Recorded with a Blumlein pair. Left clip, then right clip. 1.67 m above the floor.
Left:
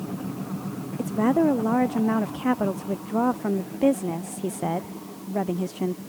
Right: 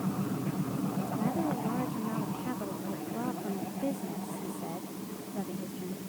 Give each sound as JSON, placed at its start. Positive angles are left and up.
{"t": 1.0, "sound": "a woman speaking", "azimuth_deg": 55}